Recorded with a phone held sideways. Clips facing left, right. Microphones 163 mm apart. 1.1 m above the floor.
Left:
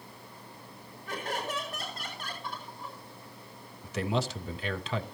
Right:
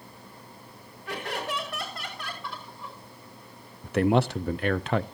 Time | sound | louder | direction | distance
1.1 | laughter | right 2 dB | 80° right | 5.5 m
3.8 | a man speaking | right 8 dB | 60° right (ahead or behind) | 0.6 m